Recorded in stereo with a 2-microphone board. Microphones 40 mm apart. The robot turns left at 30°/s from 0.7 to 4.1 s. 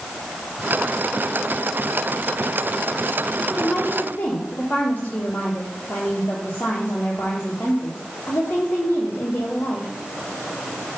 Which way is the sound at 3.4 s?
20° left (ahead or behind).